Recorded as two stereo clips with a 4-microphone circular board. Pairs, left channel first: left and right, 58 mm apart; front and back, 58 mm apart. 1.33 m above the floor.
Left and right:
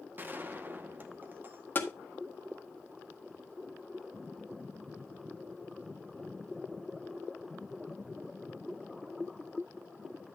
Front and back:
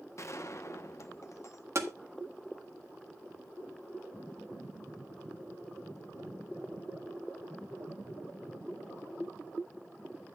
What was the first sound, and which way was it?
A gunshot, 35° right.